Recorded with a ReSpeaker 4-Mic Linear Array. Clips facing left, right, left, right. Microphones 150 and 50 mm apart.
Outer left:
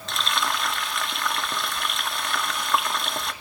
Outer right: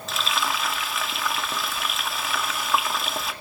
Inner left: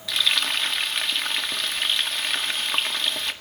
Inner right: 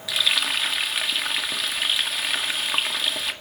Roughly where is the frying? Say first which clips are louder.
Even, even; centre.